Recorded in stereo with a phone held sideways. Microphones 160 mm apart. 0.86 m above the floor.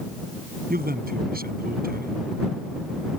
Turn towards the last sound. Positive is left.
turn(degrees=-70)  # may be behind; listen again after turning